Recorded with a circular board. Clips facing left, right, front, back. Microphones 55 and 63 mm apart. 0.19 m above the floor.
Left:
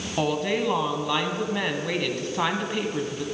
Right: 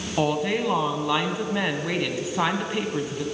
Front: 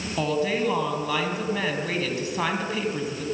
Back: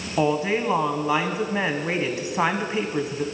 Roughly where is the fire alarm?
I don't hear a fire alarm.